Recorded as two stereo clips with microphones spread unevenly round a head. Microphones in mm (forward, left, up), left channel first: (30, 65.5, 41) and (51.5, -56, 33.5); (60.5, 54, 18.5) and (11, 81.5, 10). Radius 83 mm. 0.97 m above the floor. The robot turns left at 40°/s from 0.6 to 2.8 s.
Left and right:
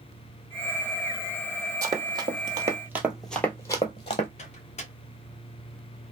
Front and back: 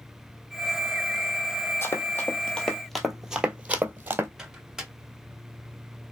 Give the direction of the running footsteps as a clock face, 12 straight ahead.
1 o'clock.